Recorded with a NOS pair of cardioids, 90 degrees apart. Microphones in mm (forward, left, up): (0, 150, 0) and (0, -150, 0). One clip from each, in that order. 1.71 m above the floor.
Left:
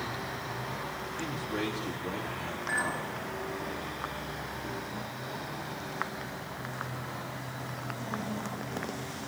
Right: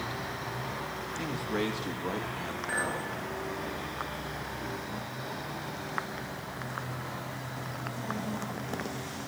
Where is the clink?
10° right, 3.5 m.